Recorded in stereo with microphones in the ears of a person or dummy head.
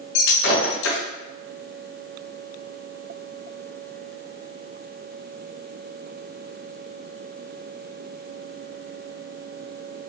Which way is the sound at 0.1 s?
65° left (ahead or behind).